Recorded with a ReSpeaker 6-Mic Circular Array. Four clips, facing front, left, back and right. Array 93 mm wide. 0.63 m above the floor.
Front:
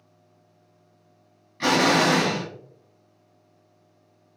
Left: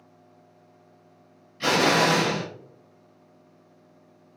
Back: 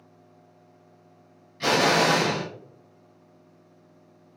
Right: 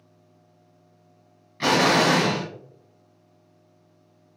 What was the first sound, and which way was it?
An explosion, 55° right.